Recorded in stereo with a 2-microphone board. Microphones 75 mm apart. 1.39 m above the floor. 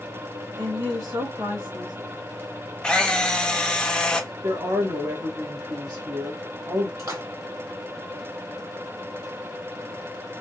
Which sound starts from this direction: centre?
A camera shutter, at 2.8 s.